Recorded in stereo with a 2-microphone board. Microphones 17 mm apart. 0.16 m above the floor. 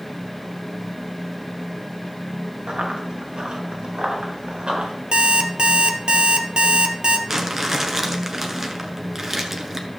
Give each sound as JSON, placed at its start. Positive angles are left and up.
{"t": 2.7, "sound": "running footsteps", "side_deg": -60, "distance_m": 3.5}
{"t": 5.1, "sound": "an alarm clock", "side_deg": -70, "distance_m": 1.4}
{"t": 7.3, "sound": "crumpling", "side_deg": -20, "distance_m": 1.4}